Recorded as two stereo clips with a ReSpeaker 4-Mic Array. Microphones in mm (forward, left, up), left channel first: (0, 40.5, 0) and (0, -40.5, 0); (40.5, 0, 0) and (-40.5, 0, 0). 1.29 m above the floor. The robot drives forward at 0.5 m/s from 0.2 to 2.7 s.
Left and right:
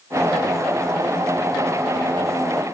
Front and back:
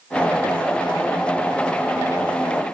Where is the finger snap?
I don't hear a finger snap.